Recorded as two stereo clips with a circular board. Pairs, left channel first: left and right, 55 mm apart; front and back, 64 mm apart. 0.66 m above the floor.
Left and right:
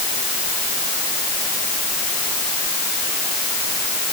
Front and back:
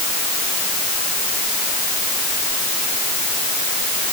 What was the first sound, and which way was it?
Only background noise.